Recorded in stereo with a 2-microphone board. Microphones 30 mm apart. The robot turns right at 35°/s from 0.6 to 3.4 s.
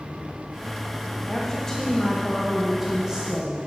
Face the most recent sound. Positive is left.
turn(degrees=-140)